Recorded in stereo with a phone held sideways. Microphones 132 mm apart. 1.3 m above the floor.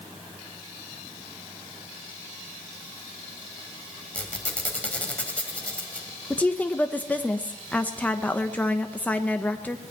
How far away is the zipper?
No zipper in this recording.